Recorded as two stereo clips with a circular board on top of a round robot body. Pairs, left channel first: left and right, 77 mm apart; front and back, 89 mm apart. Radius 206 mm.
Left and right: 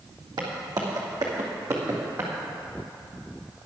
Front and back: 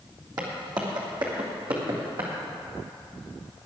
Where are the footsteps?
130° right, 2 m; by 2.3 s 155° right, 2.5 m.